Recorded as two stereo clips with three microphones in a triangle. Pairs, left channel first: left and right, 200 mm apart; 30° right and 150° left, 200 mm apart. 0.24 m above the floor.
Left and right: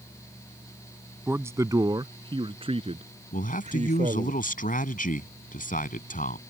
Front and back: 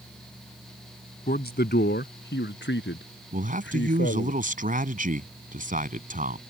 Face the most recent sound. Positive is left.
turn(degrees=120)